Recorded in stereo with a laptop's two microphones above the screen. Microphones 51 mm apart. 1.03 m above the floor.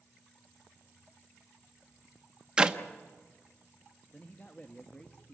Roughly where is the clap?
Centre.